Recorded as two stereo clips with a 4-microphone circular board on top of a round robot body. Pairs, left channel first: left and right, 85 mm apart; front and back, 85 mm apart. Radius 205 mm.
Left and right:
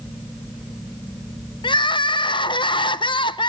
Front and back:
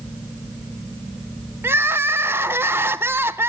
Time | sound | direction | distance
1.6 | crying | 115° left | 0.5 m